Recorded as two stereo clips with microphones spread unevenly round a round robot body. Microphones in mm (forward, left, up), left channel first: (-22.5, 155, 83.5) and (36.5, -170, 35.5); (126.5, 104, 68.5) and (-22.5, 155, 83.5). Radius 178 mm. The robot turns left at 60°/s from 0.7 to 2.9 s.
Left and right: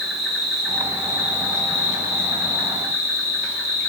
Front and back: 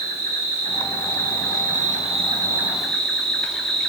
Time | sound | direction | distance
0.0 | an insect | 165° right | 0.7 m